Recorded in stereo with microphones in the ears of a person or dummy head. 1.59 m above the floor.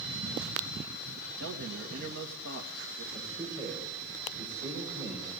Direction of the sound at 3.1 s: 25° right (ahead or behind).